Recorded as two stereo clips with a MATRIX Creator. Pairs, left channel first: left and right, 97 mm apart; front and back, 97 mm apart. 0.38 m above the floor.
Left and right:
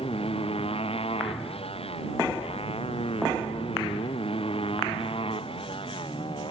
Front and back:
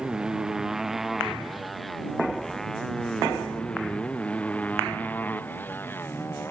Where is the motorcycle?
100° left; by 6.5 s 65° left.